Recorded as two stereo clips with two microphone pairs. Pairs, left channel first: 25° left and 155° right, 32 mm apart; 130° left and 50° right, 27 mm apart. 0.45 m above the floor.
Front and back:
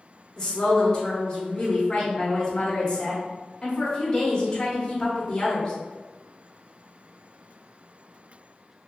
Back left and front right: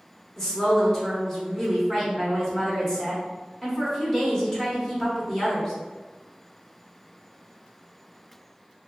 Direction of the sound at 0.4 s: 80° left.